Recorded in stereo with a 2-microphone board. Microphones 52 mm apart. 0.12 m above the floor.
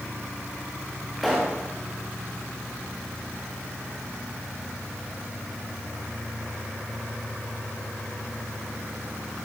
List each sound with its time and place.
1.2 s a pop: centre (ahead or behind), 3 m